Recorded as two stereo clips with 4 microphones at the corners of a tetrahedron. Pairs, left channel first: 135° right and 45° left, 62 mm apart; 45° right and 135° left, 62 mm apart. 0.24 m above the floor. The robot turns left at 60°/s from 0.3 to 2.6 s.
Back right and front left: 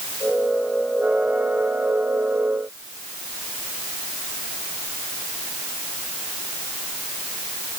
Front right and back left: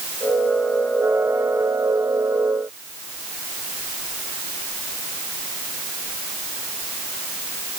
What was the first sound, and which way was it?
Only background noise.